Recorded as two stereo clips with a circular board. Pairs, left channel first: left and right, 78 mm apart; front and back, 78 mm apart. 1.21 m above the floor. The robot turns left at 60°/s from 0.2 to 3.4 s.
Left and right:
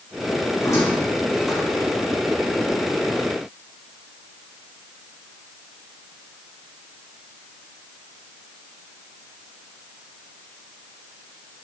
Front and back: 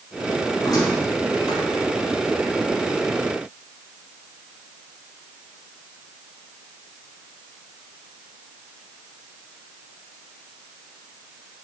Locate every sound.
0.6 s a squeak: 50° left, 4 m; by 1.9 s 30° right, 4 m